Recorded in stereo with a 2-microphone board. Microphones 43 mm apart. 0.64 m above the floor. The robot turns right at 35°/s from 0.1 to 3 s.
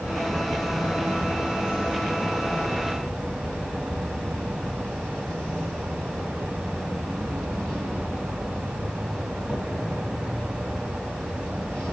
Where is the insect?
65° left, 3.5 m; by 11.9 s 165° left, 3.5 m.